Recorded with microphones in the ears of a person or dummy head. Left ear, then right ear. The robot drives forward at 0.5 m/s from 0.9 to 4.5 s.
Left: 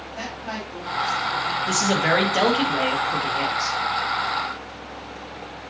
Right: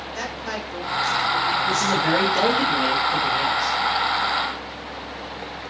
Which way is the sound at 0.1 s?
80° right.